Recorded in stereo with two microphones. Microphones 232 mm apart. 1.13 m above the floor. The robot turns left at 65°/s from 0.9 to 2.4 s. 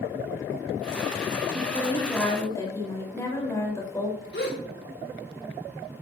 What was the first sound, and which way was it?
A woman speaking, 130° right.